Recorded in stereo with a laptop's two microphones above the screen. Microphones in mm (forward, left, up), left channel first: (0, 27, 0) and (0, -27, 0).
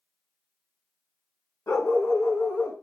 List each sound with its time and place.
1.7 s a dog barking: 65° left (ahead or behind), 2.5 m; by 2.7 s 50° left (ahead or behind), 2.5 m